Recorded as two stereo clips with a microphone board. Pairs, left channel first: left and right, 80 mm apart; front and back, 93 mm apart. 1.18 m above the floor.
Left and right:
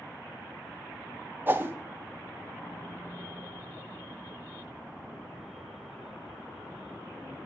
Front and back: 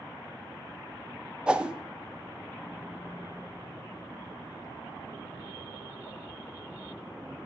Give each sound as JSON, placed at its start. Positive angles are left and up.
{"t": 1.5, "sound": "a whoosh", "azimuth_deg": -115, "distance_m": 0.6}